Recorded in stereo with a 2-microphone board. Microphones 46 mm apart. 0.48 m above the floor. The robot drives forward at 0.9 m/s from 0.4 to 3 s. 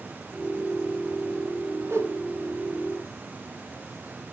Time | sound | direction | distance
1.9 | a whoosh | 75° right (ahead or behind) | 4.5 m